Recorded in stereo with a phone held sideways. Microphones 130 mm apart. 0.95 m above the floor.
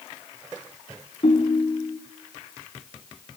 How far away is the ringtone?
About 4.5 m.